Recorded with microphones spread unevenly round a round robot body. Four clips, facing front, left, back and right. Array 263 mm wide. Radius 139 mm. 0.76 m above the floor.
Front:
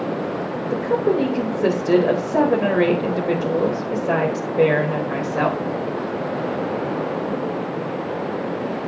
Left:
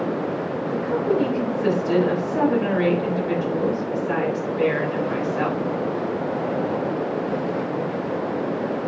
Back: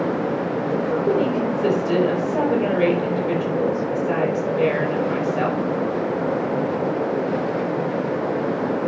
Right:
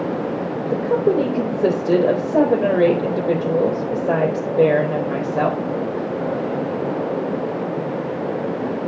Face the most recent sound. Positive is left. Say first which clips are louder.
# right 5 dB, front 2 dB
turn(degrees=-70)